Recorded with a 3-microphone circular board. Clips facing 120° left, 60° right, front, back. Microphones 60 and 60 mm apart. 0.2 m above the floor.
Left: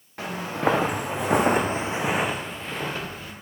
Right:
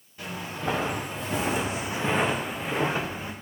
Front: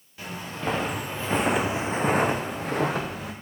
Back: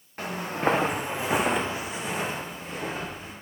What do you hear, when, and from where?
0.2 s footsteps: 135° left, 1.7 m; by 3.3 s 5° left, 1.7 m